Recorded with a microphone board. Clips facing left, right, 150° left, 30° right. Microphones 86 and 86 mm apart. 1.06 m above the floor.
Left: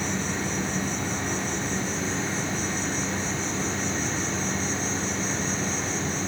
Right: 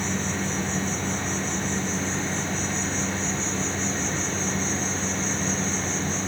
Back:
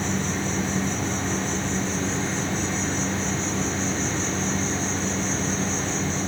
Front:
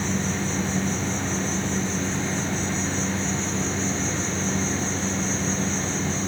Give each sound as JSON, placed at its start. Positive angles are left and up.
{"t": 0.0, "sound": "an insect", "azimuth_deg": 170, "distance_m": 5.0}